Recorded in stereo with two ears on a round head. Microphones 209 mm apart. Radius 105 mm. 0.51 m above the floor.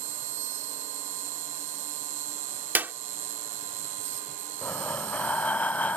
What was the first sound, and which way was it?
An insect, 55° right (ahead or behind).